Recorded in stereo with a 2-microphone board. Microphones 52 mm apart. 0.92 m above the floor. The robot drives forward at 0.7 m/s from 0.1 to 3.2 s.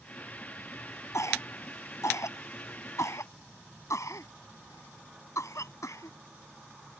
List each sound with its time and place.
1.1 s a cough: 80° left; by 6.2 s 85° left